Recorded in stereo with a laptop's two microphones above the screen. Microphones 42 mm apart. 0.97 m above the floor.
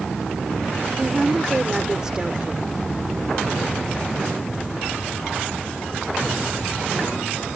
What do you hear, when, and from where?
1.0 s a woman speaking: 15° right (ahead or behind)